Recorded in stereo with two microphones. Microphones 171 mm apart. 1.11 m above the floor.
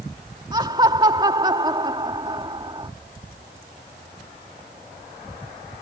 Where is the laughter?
30° right (ahead or behind).